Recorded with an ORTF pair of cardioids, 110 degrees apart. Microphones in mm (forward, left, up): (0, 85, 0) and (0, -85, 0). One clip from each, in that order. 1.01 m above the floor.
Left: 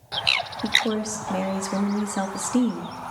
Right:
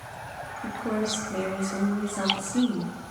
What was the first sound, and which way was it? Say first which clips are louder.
A woman speaking: left 5 dB; 65° left.